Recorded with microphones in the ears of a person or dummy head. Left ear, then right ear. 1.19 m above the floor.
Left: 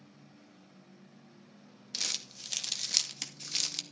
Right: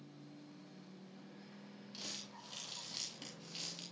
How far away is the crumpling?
About 2.5 m.